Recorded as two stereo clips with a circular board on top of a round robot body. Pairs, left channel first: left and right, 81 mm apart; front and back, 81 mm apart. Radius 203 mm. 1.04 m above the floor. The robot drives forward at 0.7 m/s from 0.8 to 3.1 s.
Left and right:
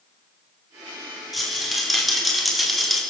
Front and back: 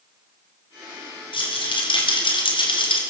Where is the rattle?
Straight ahead, 4.5 m.